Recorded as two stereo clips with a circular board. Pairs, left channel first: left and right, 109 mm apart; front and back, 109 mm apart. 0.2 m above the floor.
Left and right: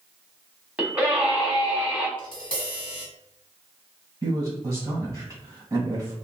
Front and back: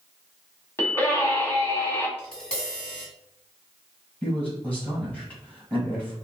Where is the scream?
30° right, 1.0 m.